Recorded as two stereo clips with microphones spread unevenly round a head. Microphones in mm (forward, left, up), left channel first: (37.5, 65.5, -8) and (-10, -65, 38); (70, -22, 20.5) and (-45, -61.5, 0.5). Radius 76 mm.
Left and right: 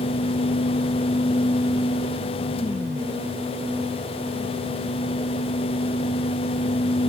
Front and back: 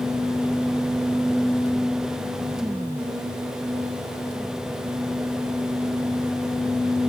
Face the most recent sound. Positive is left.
No sound to turn to.